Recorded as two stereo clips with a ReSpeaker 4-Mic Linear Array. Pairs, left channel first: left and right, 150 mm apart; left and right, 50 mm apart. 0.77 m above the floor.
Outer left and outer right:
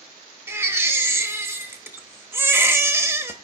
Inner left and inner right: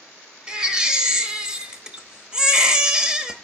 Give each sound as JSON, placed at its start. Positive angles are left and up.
{"t": 0.5, "sound": "a baby crying", "side_deg": -15, "distance_m": 1.0}